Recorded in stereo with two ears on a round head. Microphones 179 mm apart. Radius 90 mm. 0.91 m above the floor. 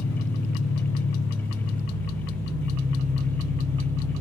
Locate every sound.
0.0 s an engine running: 80° left, 1.6 m